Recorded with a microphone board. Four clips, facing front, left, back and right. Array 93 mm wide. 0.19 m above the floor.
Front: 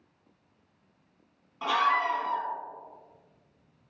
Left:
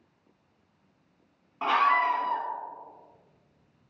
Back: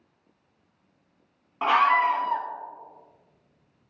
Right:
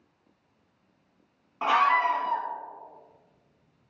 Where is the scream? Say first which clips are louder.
Right 1 dB, back 5 dB; 165° right, 1.5 m.